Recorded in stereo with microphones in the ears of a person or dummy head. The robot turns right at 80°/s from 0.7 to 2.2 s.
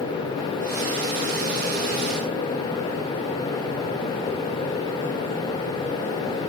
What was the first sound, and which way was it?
Only background noise.